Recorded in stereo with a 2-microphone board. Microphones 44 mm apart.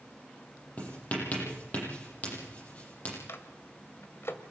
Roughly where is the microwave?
Left.